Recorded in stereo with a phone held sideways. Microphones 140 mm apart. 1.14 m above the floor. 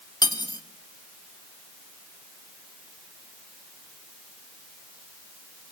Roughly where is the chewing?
I don't hear chewing.